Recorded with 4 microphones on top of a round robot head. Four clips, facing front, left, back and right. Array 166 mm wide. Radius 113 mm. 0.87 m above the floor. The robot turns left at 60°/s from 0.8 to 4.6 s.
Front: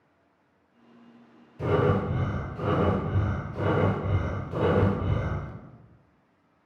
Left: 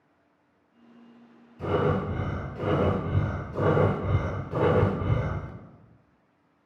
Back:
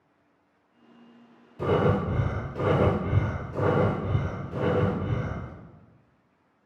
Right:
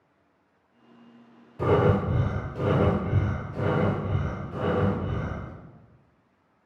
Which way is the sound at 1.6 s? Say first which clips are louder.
Right 4 dB, back 1 dB; 110° right.